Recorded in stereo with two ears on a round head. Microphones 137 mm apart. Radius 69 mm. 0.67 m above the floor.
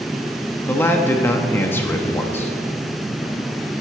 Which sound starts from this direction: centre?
A man speaking, at 0.7 s.